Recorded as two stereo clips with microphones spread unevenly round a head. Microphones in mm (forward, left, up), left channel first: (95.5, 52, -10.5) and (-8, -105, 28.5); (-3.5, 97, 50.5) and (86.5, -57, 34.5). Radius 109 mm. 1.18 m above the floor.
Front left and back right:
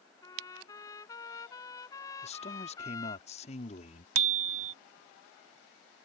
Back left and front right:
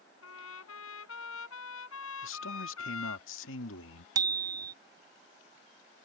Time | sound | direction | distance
0.2 | a trumpet | 135° left | ?
2.2 | a man speaking | 120° left | ?
4.2 | a bicycle bell | 135° right | ?